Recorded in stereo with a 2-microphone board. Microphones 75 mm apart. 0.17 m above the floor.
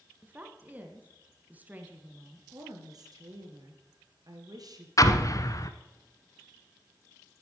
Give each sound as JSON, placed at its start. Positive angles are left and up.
{"t": 0.2, "sound": "a woman speaking", "side_deg": -20, "distance_m": 1.7}
{"t": 2.5, "sound": "a woman speaking", "side_deg": -60, "distance_m": 2.5}
{"t": 5.0, "sound": "an explosion", "side_deg": 50, "distance_m": 0.9}